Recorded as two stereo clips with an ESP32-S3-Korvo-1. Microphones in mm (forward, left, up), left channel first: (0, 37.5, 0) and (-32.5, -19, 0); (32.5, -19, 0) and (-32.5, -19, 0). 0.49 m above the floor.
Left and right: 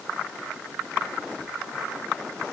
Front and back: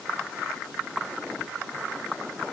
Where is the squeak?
No squeak in this recording.